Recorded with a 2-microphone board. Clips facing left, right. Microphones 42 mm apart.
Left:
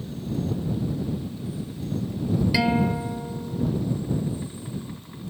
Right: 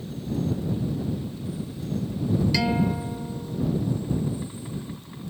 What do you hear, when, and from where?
2.5 s a guitar: 15° left (ahead or behind)